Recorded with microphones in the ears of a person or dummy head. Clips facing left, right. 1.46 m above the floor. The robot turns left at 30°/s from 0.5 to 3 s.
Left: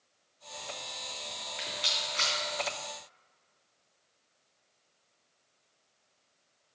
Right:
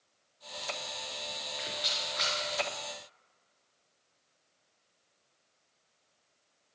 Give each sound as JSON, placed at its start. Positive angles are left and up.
{"t": 1.6, "sound": "a rattle", "side_deg": 30, "distance_m": 3.0}